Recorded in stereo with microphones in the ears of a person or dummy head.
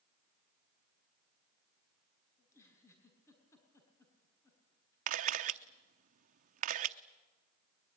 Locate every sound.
2.4 s a giggle: 15° left (ahead or behind), 5.5 m
5.1 s a camera shutter: 45° right (ahead or behind), 0.8 m